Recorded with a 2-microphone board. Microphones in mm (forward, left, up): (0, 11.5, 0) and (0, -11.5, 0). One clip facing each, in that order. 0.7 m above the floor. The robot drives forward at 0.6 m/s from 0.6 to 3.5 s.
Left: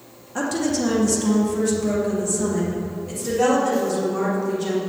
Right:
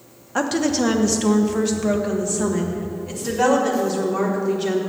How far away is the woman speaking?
About 0.9 m.